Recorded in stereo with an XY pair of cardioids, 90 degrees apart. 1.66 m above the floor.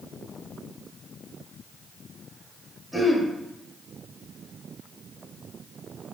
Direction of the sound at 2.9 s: Straight ahead.